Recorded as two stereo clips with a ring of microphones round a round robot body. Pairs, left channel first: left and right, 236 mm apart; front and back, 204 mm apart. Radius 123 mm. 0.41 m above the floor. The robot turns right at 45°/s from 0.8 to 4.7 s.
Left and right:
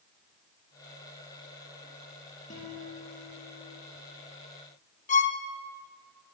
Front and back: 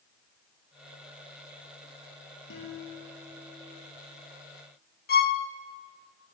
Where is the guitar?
30° left, 8 m; by 3.8 s 90° left, 8 m.